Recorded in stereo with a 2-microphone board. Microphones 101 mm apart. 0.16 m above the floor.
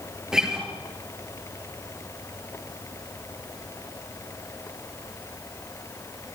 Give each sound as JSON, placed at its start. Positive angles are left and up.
{"t": 0.3, "sound": "a guitar", "side_deg": -5, "distance_m": 3.0}